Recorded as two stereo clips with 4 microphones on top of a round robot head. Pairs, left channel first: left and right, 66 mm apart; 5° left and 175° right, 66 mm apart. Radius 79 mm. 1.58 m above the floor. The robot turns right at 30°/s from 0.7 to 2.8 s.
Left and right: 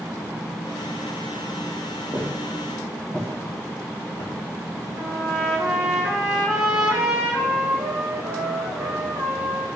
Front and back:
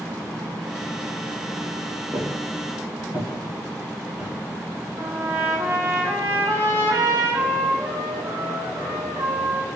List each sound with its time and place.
2.1 s footsteps: 175° right, 1.7 m; by 4.3 s 115° left, 2 m
5.0 s a trumpet: 150° right, 2.5 m